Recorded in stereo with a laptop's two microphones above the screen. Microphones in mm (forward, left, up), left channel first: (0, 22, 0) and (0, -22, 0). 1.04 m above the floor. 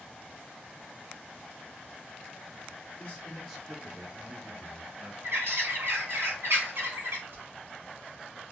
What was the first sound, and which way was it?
A man speaking, 30° left (ahead or behind).